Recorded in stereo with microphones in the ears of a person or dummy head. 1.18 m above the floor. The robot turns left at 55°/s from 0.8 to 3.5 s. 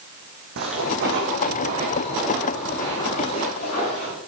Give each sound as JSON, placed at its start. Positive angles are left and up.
{"t": 0.6, "sound": "footsteps", "side_deg": -70, "distance_m": 4.5}